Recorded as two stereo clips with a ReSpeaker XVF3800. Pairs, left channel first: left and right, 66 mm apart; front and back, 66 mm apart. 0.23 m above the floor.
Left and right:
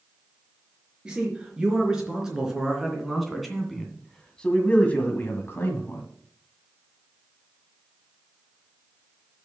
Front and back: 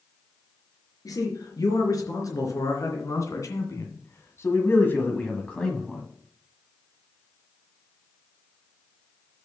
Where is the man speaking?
15° right, 4 m; by 6.0 s 85° left, 1.7 m.